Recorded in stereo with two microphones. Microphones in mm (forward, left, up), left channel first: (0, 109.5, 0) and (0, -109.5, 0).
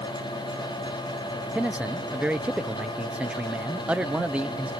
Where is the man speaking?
5° right (ahead or behind).